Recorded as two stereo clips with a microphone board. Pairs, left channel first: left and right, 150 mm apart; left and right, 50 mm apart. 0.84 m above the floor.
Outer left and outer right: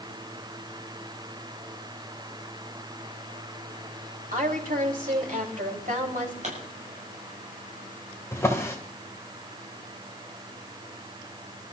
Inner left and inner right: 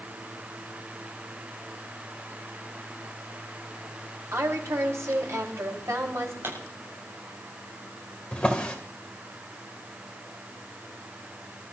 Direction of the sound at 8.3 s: 20° left (ahead or behind).